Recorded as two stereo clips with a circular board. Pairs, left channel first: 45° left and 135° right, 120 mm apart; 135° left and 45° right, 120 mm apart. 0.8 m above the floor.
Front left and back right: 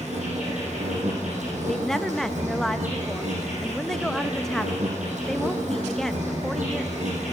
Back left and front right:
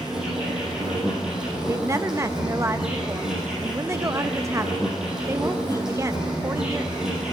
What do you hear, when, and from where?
0.0 s an insect: 130° right, 5.5 m
1.7 s a woman speaking: 35° right, 0.5 m